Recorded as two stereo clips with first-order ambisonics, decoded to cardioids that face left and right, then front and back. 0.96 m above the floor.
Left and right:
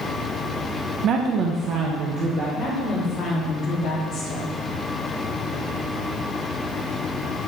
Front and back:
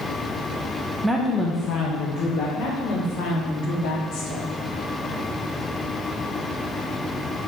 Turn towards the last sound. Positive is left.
turn(degrees=30)